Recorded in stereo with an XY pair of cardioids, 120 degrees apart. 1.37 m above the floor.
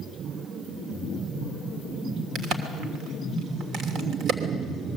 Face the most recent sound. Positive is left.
turn(degrees=-65)